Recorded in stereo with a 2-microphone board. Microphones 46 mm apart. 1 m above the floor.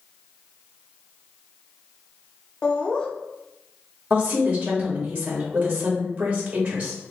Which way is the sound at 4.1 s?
45° right (ahead or behind).